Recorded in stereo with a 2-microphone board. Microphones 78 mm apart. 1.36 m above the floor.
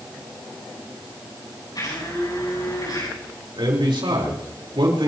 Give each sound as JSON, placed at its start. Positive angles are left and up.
{"t": 1.8, "sound": "a blender", "side_deg": 55, "distance_m": 8.5}
{"t": 3.6, "sound": "a man speaking", "side_deg": -90, "distance_m": 4.5}